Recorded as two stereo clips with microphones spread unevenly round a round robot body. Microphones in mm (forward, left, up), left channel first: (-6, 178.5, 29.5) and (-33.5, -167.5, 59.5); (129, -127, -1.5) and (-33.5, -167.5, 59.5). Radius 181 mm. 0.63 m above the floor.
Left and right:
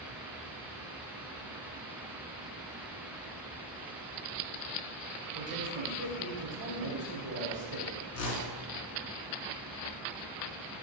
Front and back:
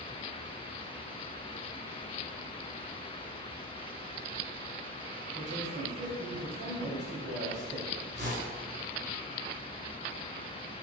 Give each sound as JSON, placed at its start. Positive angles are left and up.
{"t": 5.3, "sound": "a man speaking", "azimuth_deg": -155, "distance_m": 3.5}
{"t": 8.1, "sound": "a whoosh", "azimuth_deg": 125, "distance_m": 2.0}